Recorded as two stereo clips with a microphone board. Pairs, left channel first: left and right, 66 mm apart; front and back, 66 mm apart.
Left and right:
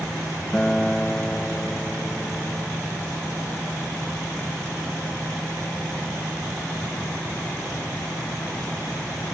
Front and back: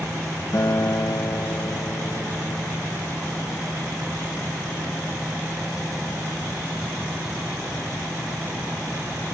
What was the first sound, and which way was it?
A guitar, 15° left.